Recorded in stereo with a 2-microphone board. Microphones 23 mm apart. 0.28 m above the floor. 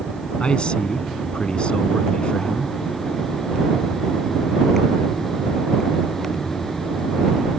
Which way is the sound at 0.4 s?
55° left (ahead or behind).